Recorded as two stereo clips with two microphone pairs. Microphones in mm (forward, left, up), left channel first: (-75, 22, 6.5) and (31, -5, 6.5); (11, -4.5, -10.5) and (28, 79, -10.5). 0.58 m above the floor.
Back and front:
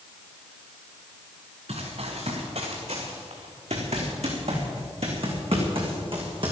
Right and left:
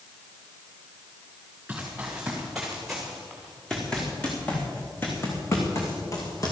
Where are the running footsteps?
Straight ahead, 4 m; by 6.5 s 55° right, 3.5 m.